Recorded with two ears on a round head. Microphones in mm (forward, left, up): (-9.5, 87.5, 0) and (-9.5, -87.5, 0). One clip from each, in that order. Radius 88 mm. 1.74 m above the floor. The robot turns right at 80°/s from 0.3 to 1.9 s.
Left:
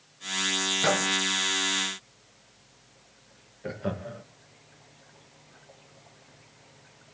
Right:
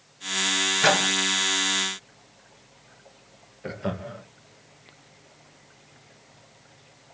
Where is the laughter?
20° right (ahead or behind), 1.2 m.